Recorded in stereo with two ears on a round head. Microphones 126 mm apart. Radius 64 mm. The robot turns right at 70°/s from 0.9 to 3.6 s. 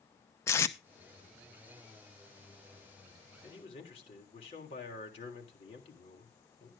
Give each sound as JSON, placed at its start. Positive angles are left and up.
{"t": 0.5, "sound": "tape being pulled", "side_deg": 20, "distance_m": 0.8}
{"t": 3.4, "sound": "a man speaking", "side_deg": 30, "distance_m": 3.5}